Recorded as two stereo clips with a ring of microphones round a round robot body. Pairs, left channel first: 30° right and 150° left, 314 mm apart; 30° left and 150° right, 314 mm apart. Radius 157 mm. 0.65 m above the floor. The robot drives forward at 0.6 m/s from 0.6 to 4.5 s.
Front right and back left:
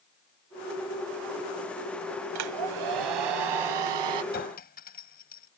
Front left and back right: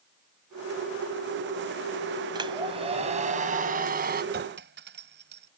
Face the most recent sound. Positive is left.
turn(degrees=-90)